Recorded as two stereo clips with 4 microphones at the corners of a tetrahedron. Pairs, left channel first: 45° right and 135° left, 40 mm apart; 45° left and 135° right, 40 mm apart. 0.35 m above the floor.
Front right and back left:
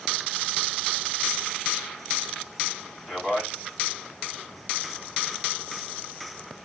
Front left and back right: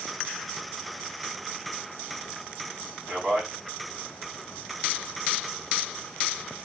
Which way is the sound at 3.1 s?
165° right.